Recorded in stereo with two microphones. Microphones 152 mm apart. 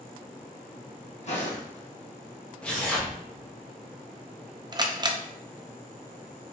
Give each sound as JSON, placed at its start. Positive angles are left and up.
{"t": 1.2, "sound": "footsteps", "side_deg": 50, "distance_m": 1.6}
{"t": 2.6, "sound": "tearing paper", "side_deg": 10, "distance_m": 1.1}
{"t": 4.7, "sound": "a camera shutter", "side_deg": -30, "distance_m": 0.5}